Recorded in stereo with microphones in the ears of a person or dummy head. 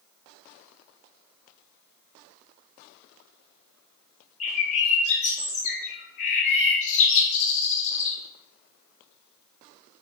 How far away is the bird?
About 0.9 m.